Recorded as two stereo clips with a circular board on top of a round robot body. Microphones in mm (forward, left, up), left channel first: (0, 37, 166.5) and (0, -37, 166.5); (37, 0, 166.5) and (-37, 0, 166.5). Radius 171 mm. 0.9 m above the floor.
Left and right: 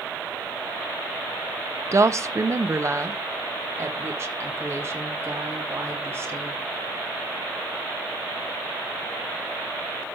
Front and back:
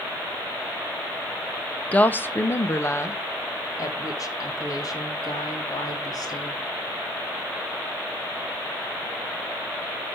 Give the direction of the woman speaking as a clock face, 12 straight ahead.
2 o'clock.